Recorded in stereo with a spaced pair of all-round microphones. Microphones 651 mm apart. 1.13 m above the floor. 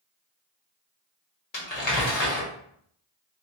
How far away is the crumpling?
About 1.3 m.